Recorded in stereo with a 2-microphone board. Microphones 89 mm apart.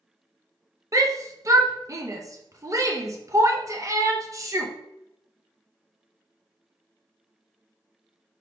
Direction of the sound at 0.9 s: 40° right (ahead or behind).